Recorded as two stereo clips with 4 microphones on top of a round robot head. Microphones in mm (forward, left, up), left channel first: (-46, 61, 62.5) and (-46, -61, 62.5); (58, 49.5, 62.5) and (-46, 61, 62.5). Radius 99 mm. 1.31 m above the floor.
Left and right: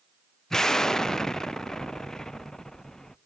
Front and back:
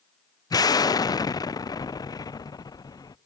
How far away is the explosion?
About 0.5 m.